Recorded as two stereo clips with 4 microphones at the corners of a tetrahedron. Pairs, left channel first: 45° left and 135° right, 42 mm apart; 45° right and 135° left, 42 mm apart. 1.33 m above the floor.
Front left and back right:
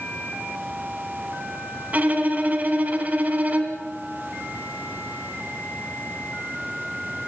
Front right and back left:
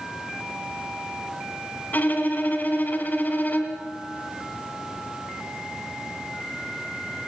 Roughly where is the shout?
No shout in this recording.